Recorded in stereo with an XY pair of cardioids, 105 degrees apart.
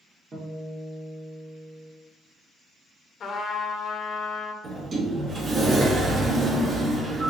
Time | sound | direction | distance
0.3 | a guitar | 35° right | 1.7 m
3.2 | a trumpet | 55° left | 0.7 m
4.6 | a sliding door | 40° right | 1.2 m